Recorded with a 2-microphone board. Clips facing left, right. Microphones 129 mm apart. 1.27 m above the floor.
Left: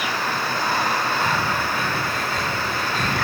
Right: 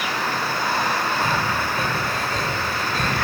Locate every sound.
1.2 s breathing: 45° right (ahead or behind), 1.8 m